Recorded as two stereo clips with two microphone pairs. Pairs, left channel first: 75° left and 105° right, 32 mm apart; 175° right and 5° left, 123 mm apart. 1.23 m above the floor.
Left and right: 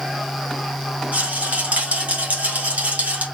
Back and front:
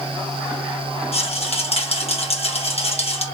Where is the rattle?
145° right, 1.5 m.